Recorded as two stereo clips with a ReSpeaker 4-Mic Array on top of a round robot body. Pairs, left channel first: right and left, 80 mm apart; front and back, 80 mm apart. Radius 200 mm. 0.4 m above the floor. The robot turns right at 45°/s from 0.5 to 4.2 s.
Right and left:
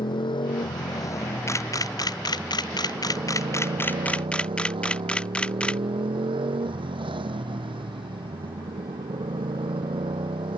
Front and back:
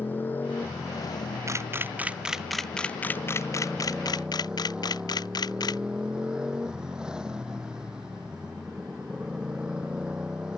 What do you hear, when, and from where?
0.0 s a motorcycle: 70° right; by 10.6 s 100° left
1.5 s a camera shutter: 140° right; by 5.8 s 15° right